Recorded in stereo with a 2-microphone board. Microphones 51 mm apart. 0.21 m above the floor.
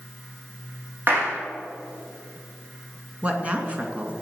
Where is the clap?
45° right (ahead or behind), 6.5 m.